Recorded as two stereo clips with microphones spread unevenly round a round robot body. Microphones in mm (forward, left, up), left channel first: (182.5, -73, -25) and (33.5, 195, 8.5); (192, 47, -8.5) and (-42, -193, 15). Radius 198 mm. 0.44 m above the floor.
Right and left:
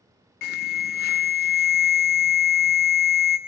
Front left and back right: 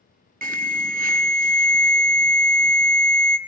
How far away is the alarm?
About 0.9 m.